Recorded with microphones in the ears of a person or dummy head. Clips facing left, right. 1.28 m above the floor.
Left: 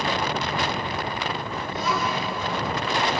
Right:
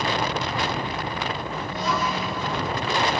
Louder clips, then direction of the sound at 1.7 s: Even; 90° left.